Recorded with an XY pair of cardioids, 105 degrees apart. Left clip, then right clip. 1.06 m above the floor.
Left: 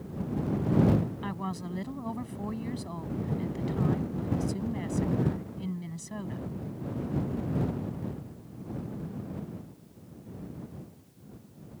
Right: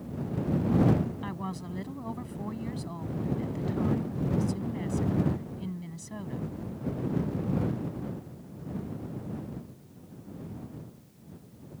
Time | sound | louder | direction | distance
1.2 | a woman speaking | left 1 dB | 15° left | ?